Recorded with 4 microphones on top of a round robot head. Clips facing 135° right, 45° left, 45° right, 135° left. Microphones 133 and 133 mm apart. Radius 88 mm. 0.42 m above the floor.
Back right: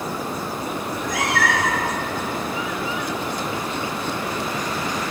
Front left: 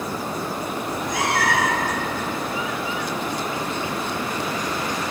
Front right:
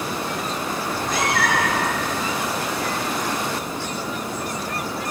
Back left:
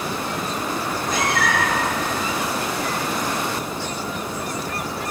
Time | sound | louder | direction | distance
0.8 | a cat meowing | front left 1 dB, front right 1 dB | 10° right | 3.5 m